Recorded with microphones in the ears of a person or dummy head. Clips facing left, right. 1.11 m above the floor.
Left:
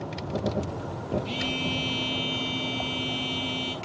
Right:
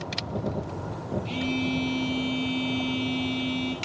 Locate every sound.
1.2 s a phone buzzing: 15° left (ahead or behind), 3.5 m